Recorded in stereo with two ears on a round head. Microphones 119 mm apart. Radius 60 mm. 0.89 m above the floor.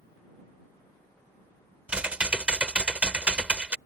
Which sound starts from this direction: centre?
Typing on a keyboard, at 1.9 s.